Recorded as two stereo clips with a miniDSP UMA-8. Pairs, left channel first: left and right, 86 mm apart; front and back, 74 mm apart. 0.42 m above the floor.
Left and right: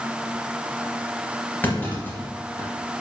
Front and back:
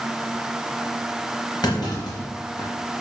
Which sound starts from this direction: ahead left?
A clunk, at 1.6 s.